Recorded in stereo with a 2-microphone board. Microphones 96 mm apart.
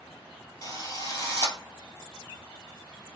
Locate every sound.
0.6 s a drill: 35° left (ahead or behind), 1.6 m